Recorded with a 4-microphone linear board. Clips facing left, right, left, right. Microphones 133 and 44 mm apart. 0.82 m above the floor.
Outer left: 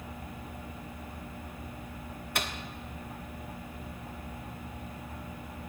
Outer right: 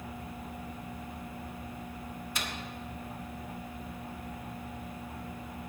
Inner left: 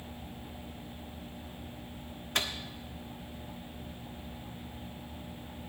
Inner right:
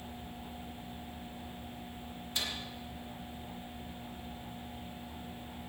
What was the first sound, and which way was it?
A microwave, 60° left (ahead or behind).